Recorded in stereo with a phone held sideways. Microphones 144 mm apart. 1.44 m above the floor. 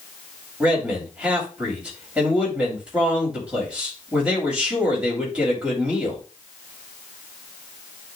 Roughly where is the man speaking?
Centre.